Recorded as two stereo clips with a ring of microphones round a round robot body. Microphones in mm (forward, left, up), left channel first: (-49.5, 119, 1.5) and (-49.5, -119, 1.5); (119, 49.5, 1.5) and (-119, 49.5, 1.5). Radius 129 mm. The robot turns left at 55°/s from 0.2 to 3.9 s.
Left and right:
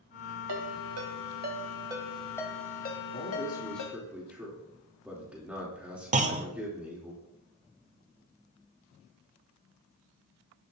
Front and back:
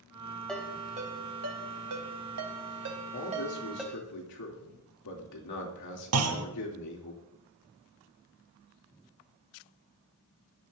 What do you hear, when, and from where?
0.5 s a ringtone: 85° right, 2.5 m; by 4.0 s 85° left, 2.5 m
3.1 s a man speaking: 35° left, 3 m; by 7.1 s 5° right, 3 m
6.1 s a clunk: 150° right, 1.2 m